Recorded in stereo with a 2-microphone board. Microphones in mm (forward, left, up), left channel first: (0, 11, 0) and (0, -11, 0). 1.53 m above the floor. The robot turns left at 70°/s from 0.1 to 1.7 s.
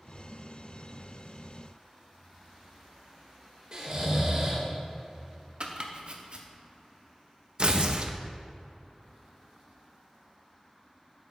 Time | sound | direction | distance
3.7 | snoring | 35° right (ahead or behind) | 1.7 m
5.6 | chopping | 45° right (ahead or behind) | 0.8 m
7.6 | tearing paper | 50° right (ahead or behind) | 0.6 m